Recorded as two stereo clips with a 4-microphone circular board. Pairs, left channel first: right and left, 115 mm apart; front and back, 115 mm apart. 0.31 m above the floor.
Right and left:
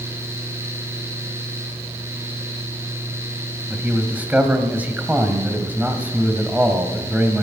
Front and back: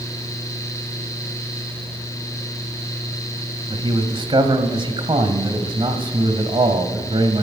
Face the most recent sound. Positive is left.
turn(degrees=160)